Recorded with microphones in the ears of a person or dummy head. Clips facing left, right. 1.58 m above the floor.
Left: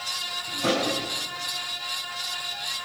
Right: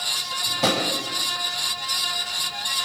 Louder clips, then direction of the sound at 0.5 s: Right 1 dB; 80° right.